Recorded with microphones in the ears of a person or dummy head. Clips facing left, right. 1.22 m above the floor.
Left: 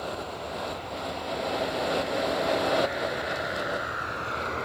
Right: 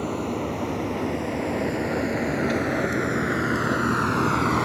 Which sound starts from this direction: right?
A vehicle, at 0.0 s.